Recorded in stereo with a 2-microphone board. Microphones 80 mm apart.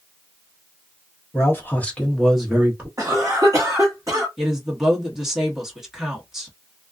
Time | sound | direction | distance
1.3 | a man speaking | 35° left (ahead or behind) | 1.0 m
3.0 | a cough | 35° right (ahead or behind) | 1.1 m
4.4 | a woman speaking | 5° right (ahead or behind) | 1.1 m